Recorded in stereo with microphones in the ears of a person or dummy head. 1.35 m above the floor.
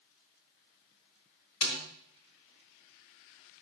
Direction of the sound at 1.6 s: 60° left (ahead or behind).